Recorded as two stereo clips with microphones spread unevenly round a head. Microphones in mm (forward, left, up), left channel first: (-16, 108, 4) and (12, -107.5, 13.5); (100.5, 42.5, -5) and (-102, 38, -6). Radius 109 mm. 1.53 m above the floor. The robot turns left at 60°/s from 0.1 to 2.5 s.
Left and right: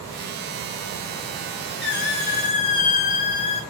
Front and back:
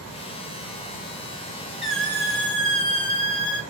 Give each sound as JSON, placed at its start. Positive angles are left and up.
{"t": 1.8, "sound": "a squeak", "azimuth_deg": 95, "distance_m": 0.5}